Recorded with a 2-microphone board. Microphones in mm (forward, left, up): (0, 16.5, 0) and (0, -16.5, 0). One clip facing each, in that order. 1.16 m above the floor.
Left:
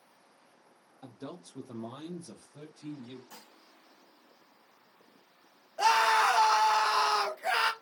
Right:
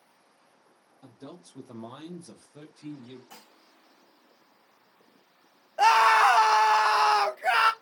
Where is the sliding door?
I don't hear a sliding door.